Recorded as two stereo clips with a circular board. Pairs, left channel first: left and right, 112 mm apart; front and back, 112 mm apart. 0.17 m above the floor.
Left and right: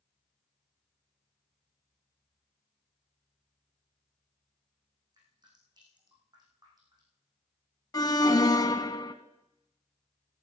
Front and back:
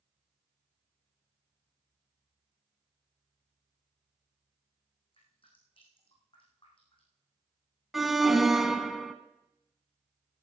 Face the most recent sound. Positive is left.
turn(degrees=95)